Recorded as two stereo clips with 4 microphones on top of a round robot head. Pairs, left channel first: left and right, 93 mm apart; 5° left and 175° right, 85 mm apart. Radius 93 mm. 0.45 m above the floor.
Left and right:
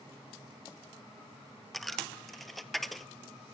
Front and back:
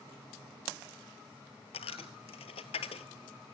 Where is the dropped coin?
Straight ahead, 0.8 m.